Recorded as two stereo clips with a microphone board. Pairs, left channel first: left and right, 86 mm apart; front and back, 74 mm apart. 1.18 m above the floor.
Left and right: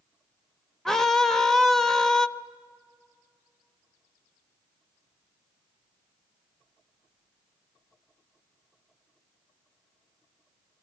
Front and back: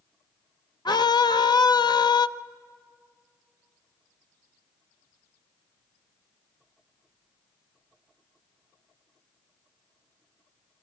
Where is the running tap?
I don't hear a running tap.